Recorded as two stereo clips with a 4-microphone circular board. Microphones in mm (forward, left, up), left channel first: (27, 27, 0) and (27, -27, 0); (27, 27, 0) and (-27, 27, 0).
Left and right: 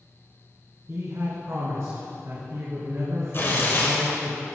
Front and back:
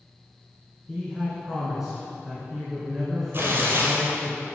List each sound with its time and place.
0.9 s a man speaking: 95° right, 2 m
3.3 s tearing paper: 135° left, 2.5 m